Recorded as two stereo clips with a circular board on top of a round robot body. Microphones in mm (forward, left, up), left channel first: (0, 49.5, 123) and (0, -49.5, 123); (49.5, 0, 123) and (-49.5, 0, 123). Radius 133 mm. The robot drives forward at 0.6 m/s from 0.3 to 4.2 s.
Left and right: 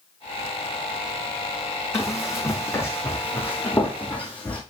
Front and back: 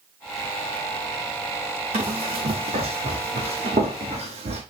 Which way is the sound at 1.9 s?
155° left.